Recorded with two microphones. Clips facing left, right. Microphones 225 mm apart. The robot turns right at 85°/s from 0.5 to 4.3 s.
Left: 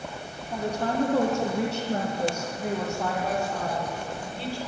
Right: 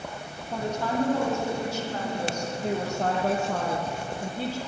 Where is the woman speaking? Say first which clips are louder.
Left 1 dB; 10° right, 4.5 m; by 4.6 s 45° right, 4.5 m.